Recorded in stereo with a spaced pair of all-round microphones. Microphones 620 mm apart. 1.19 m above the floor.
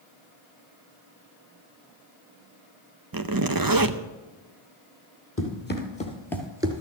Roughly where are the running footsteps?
Centre.